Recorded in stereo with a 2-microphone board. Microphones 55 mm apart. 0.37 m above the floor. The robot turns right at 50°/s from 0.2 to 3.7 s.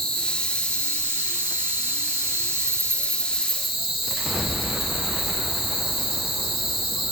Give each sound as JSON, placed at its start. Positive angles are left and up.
{"t": 0.0, "sound": "an insect", "azimuth_deg": 10, "distance_m": 6.0}